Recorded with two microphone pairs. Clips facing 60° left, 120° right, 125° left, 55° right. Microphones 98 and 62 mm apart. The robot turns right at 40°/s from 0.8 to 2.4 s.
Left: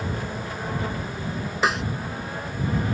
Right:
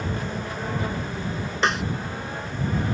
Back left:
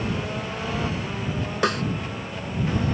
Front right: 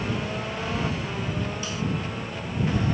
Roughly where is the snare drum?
Behind left.